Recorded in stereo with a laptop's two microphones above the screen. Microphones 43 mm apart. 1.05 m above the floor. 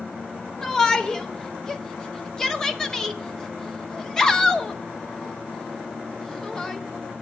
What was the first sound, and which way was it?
A shout, 15° left (ahead or behind).